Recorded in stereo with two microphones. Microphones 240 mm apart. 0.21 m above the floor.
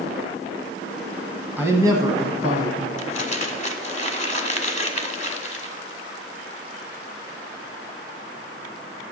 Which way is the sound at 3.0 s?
30° left (ahead or behind).